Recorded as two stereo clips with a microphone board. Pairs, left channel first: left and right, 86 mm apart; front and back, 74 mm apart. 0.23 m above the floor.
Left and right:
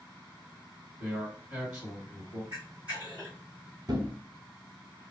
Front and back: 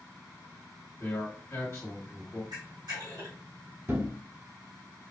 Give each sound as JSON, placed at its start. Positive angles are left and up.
{"t": 1.0, "sound": "a man speaking", "azimuth_deg": -25, "distance_m": 1.9}
{"t": 2.5, "sound": "a camera shutter", "azimuth_deg": -165, "distance_m": 2.0}
{"t": 3.9, "sound": "a thud", "azimuth_deg": -125, "distance_m": 1.0}